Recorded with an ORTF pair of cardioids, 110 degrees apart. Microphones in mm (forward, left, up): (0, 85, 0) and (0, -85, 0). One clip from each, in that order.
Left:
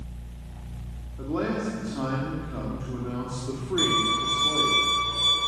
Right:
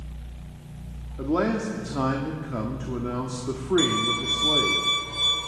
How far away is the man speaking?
About 1.8 m.